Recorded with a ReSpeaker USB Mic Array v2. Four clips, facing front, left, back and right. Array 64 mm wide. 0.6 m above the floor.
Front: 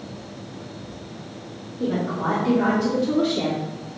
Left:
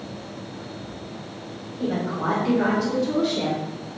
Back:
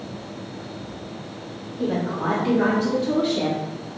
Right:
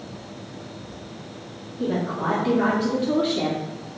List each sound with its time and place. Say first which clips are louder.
1.8 s a woman speaking: right 1 dB, even; 165° right, 1.4 m; by 3.6 s 75° right, 1.4 m